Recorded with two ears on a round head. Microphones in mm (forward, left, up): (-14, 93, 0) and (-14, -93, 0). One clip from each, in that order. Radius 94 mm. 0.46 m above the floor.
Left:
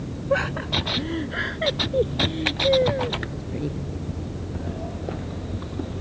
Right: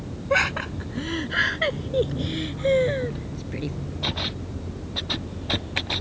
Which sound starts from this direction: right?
Laughter, at 0.3 s.